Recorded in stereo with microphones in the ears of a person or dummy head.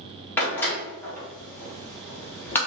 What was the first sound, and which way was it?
A door slam, 10° left (ahead or behind).